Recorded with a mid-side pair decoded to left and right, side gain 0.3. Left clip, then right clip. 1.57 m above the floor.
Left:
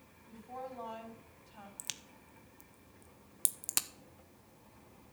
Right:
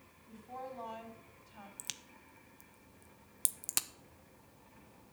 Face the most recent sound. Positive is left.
turn(degrees=5)